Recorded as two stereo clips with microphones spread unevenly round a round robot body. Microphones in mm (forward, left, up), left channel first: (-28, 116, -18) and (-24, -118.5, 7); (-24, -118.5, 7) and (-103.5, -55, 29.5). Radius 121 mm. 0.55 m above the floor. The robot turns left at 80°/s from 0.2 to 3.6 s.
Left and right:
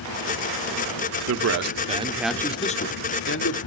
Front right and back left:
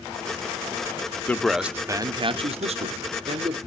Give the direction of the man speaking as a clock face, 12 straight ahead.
3 o'clock.